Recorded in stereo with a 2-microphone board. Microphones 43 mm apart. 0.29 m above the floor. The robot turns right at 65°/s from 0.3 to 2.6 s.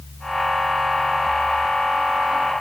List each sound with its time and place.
Only background noise.